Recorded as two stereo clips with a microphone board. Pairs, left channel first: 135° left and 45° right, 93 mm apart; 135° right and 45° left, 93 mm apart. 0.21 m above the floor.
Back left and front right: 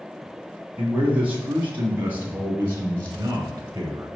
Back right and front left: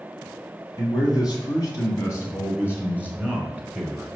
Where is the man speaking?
115° right, 2 m; by 4.1 s 45° right, 1.6 m.